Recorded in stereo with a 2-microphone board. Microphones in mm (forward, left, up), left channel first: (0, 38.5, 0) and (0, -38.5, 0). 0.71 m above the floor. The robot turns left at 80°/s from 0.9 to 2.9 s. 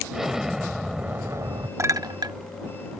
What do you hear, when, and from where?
0.1 s an explosion: 5° right; by 1.7 s 70° right
1.8 s a clink: 45° right (ahead or behind); by 2.4 s 80° right